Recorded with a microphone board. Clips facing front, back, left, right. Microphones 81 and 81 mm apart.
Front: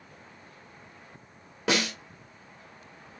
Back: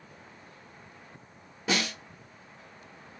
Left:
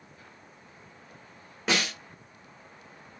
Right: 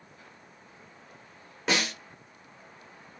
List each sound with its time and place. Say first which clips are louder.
1.7 s a snare drum: front 3 dB, even; straight ahead, 1.6 m